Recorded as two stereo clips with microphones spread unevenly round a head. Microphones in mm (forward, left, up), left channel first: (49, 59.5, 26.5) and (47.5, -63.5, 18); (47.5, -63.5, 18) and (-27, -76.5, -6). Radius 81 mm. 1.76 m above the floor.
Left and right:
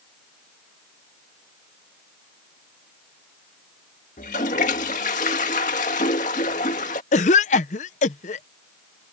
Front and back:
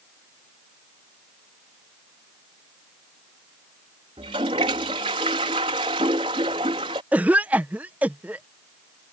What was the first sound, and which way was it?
A toilet flushing, 135° left.